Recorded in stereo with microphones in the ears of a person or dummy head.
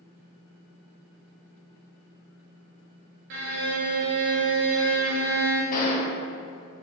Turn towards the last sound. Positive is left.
turn(degrees=40)  # may be behind; listen again after turning